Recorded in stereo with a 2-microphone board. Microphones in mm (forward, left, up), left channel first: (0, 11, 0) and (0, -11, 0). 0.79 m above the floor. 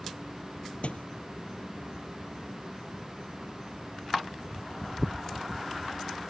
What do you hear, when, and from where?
0.8 s a thud: 80° left